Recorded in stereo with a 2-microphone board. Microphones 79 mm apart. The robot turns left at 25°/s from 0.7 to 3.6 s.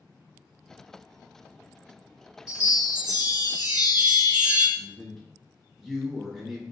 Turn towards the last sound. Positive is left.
turn(degrees=0)  # may be behind; listen again after turning